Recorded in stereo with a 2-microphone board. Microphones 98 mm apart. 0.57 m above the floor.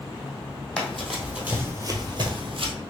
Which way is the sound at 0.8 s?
10° left (ahead or behind).